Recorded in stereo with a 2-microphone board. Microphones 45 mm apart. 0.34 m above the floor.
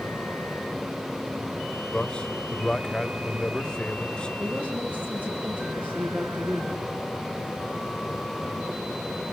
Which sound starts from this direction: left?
A man speaking, at 1.9 s.